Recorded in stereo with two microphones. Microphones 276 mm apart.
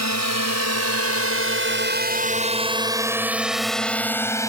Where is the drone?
80° right; by 4.5 s 10° left (ahead or behind).